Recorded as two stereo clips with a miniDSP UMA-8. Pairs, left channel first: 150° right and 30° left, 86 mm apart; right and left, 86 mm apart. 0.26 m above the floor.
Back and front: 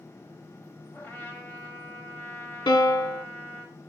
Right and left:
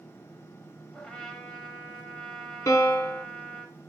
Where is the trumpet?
155° right, 0.9 m.